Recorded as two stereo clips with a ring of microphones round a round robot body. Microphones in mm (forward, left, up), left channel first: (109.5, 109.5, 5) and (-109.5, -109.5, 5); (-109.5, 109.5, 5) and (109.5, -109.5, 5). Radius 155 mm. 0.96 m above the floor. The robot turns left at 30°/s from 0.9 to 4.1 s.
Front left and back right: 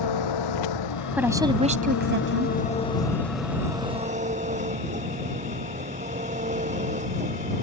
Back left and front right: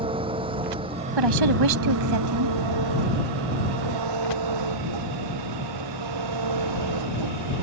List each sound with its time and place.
0.0 s an engine running: 30° left; by 7.6 s 65° right
1.2 s a woman speaking: 50° right; by 2.5 s 90° right